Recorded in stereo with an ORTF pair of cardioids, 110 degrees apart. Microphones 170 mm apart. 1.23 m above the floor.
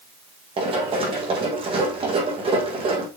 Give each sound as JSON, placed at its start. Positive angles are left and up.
{"t": 0.6, "sound": "running footsteps", "azimuth_deg": -30, "distance_m": 4.0}